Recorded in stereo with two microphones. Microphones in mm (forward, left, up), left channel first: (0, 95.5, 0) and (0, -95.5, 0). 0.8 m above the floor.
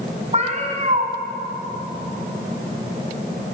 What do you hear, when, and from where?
0.3 s a cat meowing: 40° right (ahead or behind), 1.7 m